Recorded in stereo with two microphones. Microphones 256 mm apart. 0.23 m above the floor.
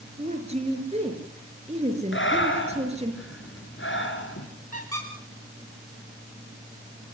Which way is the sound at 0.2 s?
25° right (ahead or behind).